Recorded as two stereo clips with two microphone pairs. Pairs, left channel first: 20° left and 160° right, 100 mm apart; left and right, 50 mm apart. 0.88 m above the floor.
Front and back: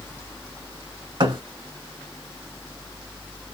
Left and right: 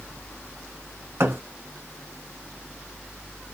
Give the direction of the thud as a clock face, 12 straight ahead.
4 o'clock.